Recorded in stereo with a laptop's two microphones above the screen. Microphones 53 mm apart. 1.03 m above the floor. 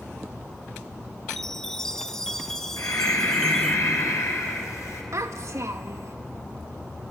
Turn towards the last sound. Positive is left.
turn(degrees=-60)  # may be behind; listen again after turning